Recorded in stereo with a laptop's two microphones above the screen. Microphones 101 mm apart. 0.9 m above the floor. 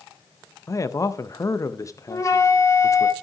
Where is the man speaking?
30° left (ahead or behind), 0.5 m.